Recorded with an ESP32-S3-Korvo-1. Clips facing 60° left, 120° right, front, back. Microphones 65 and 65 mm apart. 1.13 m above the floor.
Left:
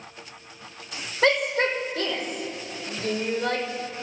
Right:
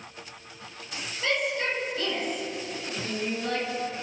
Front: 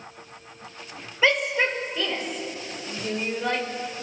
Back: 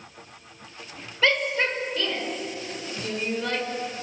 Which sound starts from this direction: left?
A shout, at 1.2 s.